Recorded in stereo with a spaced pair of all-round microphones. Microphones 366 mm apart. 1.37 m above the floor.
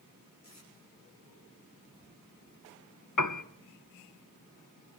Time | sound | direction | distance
0.4 | tape being pulled | 50° left (ahead or behind) | 6 m
3.2 | a piano | 55° left (ahead or behind) | 0.7 m